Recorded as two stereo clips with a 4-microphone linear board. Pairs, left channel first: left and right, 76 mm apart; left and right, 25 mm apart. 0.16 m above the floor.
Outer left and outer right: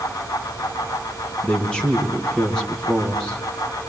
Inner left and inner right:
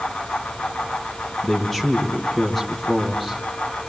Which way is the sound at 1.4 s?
10° left (ahead or behind).